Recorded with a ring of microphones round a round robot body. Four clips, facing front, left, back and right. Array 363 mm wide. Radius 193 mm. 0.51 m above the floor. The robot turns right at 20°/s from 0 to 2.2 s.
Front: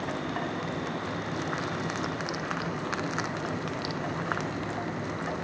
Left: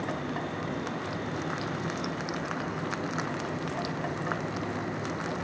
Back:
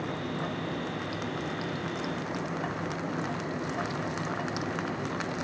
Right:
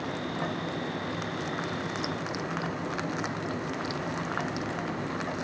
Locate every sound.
2.0 s scissors: 20° right; by 2.2 s 15° right